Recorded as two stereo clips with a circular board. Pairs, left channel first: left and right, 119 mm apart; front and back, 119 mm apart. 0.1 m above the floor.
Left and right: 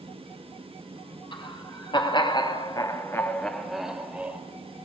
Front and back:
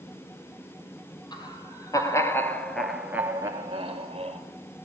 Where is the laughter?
50° left, 3.5 m; by 4.4 s 165° right, 2.5 m.